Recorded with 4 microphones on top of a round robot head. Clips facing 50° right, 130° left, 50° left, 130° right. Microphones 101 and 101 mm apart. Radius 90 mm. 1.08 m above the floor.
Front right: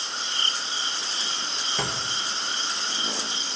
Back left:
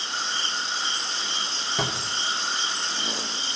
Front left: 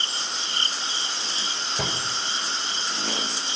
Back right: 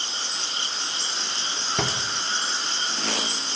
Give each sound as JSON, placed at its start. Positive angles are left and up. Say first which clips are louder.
{"t": 1.8, "sound": "a drawer", "louder": "back left 2 dB, back right 3 dB", "azimuth_deg": -150, "distance_m": 2.0}